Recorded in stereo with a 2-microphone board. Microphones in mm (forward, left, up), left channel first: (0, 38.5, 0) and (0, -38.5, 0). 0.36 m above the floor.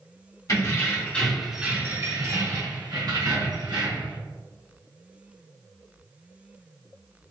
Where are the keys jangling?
45° left (ahead or behind), 1.4 m; by 4.2 s 75° right (ahead or behind), 3 m.